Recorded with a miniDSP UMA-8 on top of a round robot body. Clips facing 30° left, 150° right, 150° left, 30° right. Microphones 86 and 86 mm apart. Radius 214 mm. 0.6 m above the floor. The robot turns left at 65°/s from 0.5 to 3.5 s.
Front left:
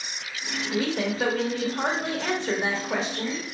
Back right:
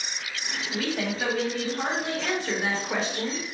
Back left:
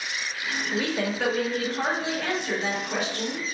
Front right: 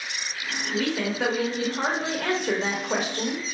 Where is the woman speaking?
85° left, 1.2 m; by 3.4 s 90° right, 1.2 m.